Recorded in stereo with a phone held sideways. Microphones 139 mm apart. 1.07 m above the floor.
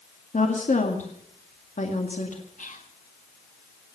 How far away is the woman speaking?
About 1.9 m.